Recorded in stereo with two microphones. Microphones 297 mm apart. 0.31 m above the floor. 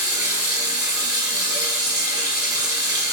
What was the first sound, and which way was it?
Running water, 10° right (ahead or behind).